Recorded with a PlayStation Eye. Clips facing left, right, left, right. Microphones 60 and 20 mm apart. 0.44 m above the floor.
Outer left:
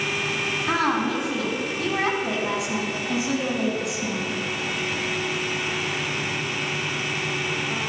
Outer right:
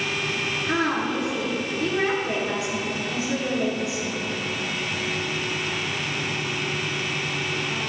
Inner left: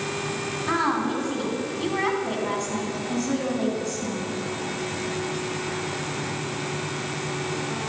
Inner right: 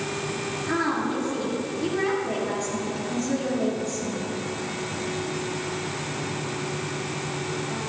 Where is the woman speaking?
75° left (ahead or behind), 3.5 m.